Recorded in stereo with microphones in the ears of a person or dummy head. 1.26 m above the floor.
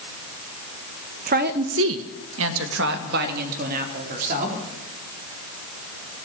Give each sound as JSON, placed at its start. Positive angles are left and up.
{"t": 1.3, "sound": "a woman speaking", "side_deg": -40, "distance_m": 1.7}